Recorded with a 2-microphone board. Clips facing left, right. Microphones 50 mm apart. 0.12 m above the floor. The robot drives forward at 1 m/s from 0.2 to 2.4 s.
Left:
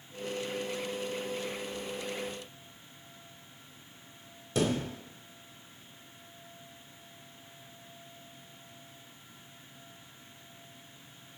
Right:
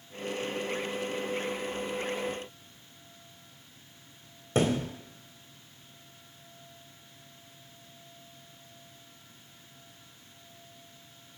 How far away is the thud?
About 1.7 m.